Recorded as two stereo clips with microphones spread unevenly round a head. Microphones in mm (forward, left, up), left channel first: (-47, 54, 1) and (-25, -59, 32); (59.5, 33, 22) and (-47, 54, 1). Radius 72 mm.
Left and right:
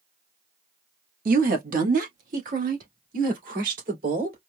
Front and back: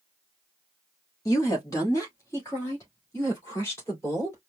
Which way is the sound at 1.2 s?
80° right.